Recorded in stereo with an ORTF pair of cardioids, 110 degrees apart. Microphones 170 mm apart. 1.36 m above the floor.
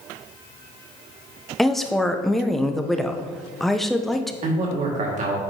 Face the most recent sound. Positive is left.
turn(degrees=-45)